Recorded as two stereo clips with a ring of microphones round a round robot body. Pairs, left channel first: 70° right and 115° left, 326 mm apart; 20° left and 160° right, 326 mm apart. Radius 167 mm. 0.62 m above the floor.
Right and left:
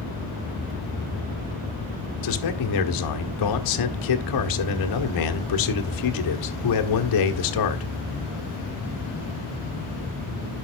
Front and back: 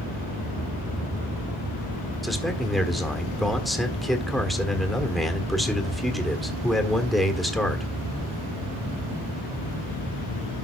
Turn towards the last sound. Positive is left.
turn(degrees=-65)